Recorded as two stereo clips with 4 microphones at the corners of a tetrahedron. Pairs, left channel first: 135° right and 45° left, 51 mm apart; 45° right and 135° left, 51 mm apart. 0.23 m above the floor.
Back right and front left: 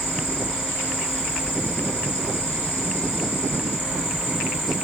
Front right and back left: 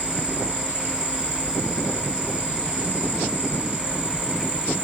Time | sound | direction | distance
0.0 | an insect | straight behind | 3 m